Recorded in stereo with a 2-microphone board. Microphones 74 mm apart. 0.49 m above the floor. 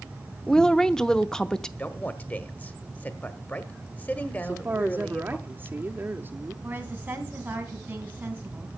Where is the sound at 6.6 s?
25° right (ahead or behind), 3.5 m.